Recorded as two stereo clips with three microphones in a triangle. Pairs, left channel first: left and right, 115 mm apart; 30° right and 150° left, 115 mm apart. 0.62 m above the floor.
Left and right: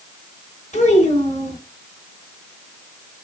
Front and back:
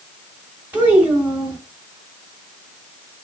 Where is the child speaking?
75° left, 3.5 m.